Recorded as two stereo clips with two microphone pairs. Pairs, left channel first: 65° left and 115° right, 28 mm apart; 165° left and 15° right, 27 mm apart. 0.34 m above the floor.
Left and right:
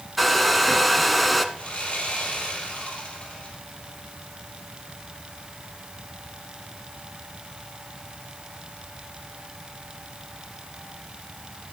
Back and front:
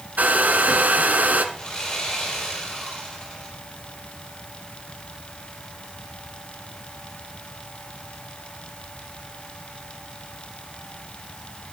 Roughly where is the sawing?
Left.